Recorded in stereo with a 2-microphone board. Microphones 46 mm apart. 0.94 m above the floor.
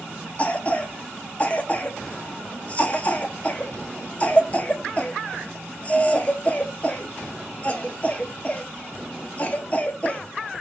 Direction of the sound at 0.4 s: 30° left (ahead or behind).